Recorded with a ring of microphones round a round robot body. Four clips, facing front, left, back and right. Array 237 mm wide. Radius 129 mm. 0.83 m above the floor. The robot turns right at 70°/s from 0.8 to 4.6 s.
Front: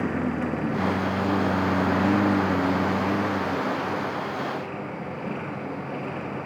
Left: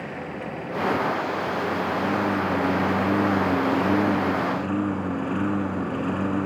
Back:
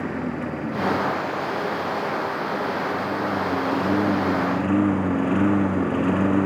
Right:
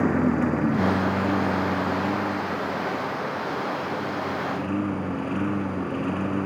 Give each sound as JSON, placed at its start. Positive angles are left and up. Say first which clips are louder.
{"t": 0.0, "sound": "a lawn mower", "louder": "right 11 dB, front 1 dB", "azimuth_deg": -90}